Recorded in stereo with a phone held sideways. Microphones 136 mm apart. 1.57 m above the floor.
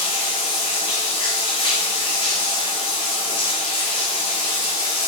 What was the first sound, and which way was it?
Running water, 35° left (ahead or behind).